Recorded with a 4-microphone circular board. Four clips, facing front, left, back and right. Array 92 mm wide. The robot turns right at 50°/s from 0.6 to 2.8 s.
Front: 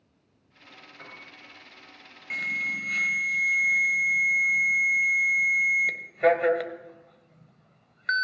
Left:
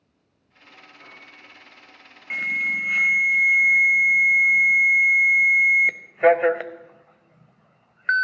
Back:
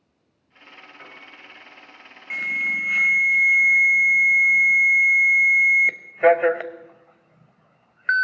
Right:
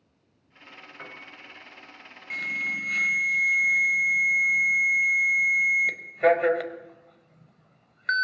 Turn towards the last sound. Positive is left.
turn(degrees=140)